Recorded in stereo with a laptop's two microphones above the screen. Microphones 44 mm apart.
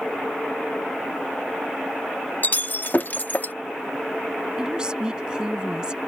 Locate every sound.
2.4 s breaking glass: 45° left (ahead or behind)
4.6 s a woman speaking: 20° right (ahead or behind)